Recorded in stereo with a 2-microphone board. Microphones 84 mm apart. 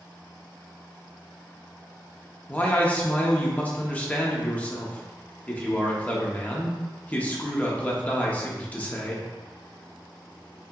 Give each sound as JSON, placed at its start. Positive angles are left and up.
{"t": 2.5, "sound": "a man speaking", "side_deg": 20, "distance_m": 0.7}